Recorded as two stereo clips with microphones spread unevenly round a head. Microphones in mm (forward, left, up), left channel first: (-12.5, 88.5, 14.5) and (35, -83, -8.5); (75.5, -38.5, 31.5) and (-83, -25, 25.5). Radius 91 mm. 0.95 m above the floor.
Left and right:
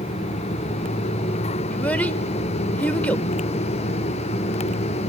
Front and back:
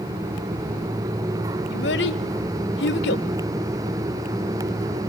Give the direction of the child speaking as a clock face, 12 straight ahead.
11 o'clock.